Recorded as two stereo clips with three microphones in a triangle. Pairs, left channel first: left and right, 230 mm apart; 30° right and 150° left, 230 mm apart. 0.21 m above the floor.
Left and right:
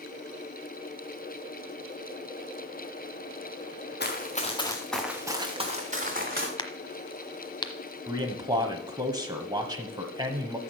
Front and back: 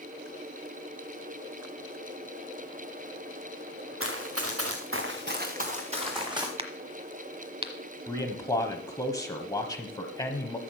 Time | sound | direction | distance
4.0 | running footsteps | 130° left | 2 m
6.6 | a crack | 130° left | 1.0 m
8.1 | a man speaking | 65° right | 1.0 m